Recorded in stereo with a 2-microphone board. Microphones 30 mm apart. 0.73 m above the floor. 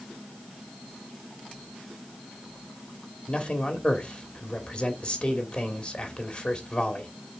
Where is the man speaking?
40° left (ahead or behind), 2.5 m.